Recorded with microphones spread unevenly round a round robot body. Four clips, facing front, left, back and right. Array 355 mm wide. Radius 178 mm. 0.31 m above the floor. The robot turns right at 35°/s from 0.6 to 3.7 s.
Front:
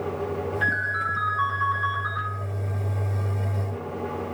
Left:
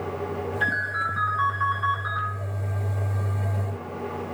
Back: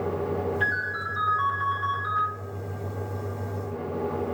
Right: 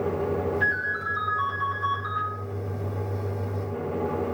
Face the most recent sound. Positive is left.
turn(degrees=-40)